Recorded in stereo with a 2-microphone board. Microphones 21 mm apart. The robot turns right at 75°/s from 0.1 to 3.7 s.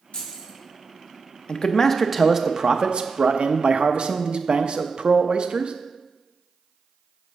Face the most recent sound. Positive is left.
turn(degrees=-60)